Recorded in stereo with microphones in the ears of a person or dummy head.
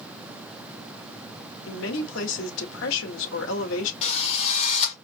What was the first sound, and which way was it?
A woman speaking, 70° left (ahead or behind).